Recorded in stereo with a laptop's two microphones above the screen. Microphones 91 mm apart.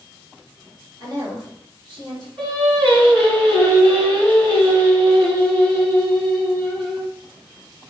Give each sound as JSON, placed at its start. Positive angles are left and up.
{"t": 1.0, "sound": "a woman speaking", "side_deg": -45, "distance_m": 2.0}
{"t": 2.4, "sound": "singing", "side_deg": -65, "distance_m": 2.0}